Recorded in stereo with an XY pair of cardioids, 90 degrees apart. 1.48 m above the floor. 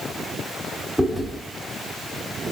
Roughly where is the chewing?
Ahead.